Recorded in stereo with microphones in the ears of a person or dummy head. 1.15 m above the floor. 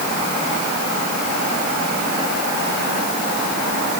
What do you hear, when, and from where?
Only background noise.